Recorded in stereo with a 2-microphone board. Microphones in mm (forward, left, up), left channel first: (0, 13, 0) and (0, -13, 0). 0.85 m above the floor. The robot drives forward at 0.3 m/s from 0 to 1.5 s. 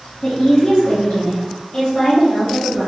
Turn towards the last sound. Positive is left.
turn(degrees=55)  # may be behind; listen again after turning